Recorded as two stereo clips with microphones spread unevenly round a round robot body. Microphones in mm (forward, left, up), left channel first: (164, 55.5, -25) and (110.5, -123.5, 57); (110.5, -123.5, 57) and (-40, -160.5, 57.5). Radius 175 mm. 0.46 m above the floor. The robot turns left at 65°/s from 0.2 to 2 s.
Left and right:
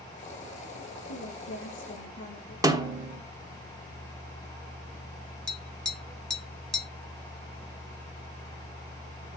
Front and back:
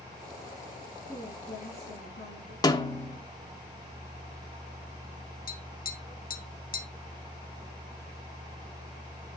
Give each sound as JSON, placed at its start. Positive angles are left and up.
{"t": 1.1, "sound": "a woman speaking", "azimuth_deg": 115, "distance_m": 5.0}
{"t": 2.6, "sound": "a snare drum", "azimuth_deg": -5, "distance_m": 1.5}
{"t": 5.5, "sound": "tapping", "azimuth_deg": -5, "distance_m": 1.7}